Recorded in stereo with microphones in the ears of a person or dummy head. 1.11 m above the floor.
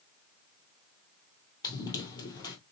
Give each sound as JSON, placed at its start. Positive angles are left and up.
{"t": 1.6, "sound": "running footsteps", "side_deg": 20, "distance_m": 1.9}